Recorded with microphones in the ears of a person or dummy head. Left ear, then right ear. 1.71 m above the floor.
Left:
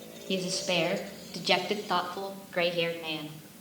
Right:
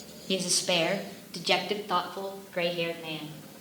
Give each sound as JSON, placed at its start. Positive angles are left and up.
{"t": 0.3, "sound": "a woman speaking", "side_deg": -20, "distance_m": 1.7}